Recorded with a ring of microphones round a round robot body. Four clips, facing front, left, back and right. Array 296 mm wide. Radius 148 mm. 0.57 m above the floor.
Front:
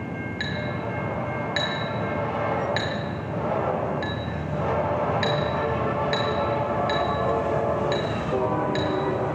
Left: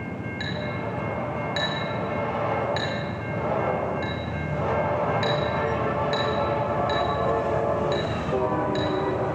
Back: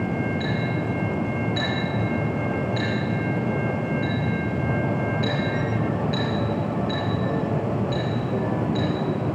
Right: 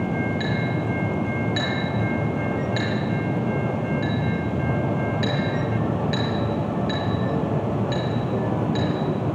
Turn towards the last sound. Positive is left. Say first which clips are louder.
# right 5 dB, back 4 dB
turn(degrees=-5)